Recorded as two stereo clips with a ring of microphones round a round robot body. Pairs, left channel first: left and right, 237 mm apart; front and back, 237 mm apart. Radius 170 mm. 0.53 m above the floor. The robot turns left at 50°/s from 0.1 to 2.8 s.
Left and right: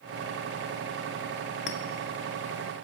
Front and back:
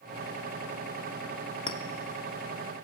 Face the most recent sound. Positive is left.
turn(degrees=10)